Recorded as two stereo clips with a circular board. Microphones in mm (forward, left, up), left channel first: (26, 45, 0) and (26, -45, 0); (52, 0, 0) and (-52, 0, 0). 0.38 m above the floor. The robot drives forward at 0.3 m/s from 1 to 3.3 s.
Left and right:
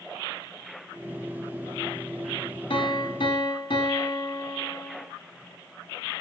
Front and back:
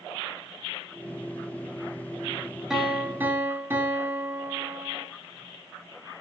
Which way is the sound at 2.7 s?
95° left.